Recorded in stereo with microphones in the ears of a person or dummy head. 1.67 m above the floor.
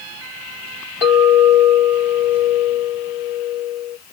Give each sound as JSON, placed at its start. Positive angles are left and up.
{"t": 1.0, "sound": "a clink", "side_deg": 10, "distance_m": 3.0}